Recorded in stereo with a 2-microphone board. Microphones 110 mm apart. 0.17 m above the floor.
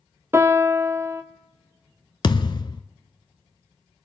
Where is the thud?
50° left (ahead or behind), 0.5 m.